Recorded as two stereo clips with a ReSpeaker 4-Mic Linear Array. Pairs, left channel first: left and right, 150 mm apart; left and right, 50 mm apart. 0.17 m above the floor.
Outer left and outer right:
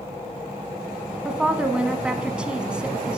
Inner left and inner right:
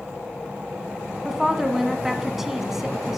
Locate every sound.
1.2 s a woman speaking: 5° right (ahead or behind), 1.1 m